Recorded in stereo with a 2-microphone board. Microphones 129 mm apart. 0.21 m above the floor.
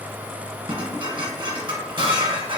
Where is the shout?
No shout in this recording.